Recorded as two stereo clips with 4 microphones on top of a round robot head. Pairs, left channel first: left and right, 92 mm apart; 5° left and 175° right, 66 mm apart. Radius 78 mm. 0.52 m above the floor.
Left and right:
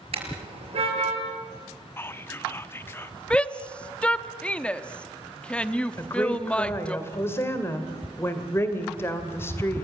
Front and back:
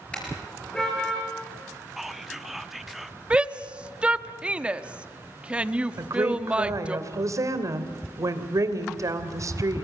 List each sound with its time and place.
0.1 s a car horn: 70° right, 5 m; by 1.2 s 75° right, 6 m
2.0 s whispering: 105° left, 1.1 m
3.3 s a shout: 145° left, 1.1 m
6.0 s a woman speaking: 155° left, 2.5 m